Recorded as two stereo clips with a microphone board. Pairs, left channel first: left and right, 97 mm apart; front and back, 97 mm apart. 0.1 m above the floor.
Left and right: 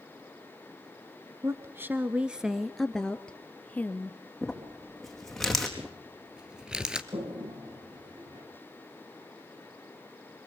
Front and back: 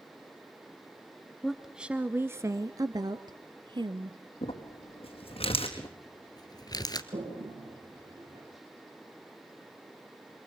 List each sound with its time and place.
1.4 s a woman speaking: 90° right, 1.2 m; by 4.2 s 155° left, 2 m
4.4 s crumpling: straight ahead, 4.5 m
5.8 s crumpling: 10° right, 2 m
7.1 s a toilet flushing: 140° right, 10 m